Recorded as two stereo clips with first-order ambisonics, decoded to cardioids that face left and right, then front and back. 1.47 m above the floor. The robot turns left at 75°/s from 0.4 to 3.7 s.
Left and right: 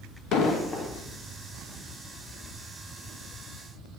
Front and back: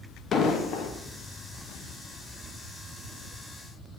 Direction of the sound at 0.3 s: 55° left.